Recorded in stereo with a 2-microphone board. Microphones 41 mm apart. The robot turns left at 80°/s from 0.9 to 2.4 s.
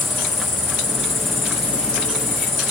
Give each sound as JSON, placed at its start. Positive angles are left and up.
{"t": 0.0, "sound": "an insect", "azimuth_deg": 35, "distance_m": 3.0}